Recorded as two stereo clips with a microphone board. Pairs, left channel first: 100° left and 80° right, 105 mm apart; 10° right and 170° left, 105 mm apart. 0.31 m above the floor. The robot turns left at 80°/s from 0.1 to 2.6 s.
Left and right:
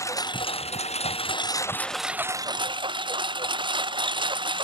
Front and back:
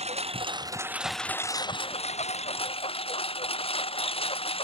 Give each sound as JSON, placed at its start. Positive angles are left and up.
{"t": 0.0, "sound": "a lawn mower", "azimuth_deg": 160}